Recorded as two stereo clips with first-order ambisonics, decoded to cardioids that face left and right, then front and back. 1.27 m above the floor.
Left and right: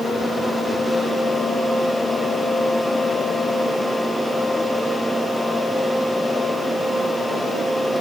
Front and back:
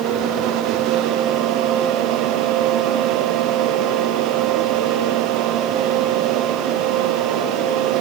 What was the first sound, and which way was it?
Only background noise.